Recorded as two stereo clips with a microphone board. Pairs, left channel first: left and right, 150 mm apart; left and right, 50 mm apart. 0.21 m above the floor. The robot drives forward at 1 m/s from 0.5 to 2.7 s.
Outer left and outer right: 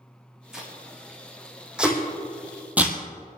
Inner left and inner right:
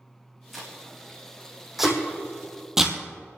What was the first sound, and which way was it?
Tape being pulled, 5° right (ahead or behind).